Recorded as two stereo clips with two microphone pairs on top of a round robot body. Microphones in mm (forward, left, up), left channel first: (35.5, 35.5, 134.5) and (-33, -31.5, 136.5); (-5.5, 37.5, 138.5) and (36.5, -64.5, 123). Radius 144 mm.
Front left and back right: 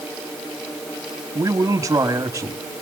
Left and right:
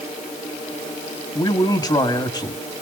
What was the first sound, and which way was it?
A man speaking, 165° left.